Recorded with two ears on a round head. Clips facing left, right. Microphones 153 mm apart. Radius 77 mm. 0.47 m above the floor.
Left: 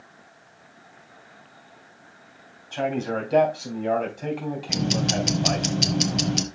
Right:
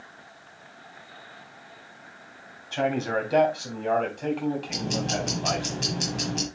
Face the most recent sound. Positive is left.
turn(degrees=65)  # may be behind; listen again after turning